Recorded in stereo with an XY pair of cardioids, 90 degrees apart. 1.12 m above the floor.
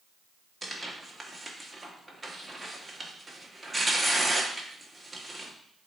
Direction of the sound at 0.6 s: 15° right.